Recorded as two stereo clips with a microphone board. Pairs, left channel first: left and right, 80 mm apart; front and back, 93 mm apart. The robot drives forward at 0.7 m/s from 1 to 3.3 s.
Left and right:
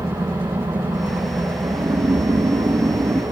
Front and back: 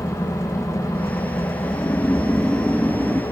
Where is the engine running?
50° right, 7.5 m; by 3.3 s 60° right, 6.5 m.